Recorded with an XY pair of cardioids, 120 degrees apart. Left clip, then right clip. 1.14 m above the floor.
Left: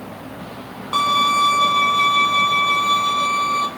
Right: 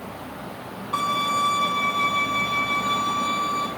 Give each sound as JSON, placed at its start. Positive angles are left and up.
{"t": 0.9, "sound": "a violin", "azimuth_deg": 65, "distance_m": 2.0}